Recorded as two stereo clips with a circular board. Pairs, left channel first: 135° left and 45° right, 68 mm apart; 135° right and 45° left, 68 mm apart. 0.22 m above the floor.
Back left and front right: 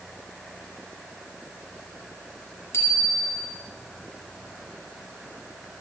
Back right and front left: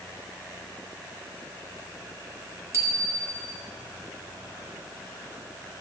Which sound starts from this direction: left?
A bicycle bell, at 2.7 s.